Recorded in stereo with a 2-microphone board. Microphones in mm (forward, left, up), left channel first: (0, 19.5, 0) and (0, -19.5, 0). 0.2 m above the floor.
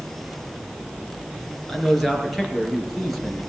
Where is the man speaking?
5° left (ahead or behind), 3 m; by 3.4 s centre (ahead or behind), 4 m.